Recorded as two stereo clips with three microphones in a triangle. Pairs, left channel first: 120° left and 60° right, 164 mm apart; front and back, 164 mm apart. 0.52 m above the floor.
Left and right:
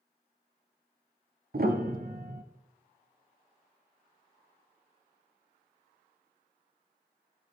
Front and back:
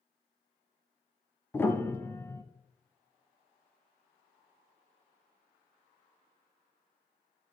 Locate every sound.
1.5 s a piano: 75° right, 0.9 m